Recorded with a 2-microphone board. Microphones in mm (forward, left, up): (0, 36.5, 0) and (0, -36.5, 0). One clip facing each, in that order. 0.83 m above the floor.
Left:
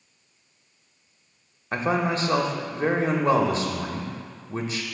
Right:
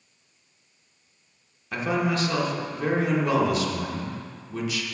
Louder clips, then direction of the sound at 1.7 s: Left 1 dB; 35° left (ahead or behind).